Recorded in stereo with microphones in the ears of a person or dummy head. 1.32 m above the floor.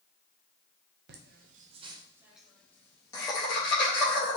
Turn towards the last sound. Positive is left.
turn(degrees=30)  # may be behind; listen again after turning